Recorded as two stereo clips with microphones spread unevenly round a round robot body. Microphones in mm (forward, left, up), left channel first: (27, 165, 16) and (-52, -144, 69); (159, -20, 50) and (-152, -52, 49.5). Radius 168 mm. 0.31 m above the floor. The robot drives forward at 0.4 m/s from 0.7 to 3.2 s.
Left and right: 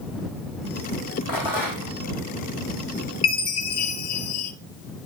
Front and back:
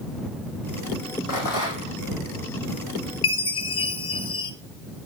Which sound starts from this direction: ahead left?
A chime, at 3.2 s.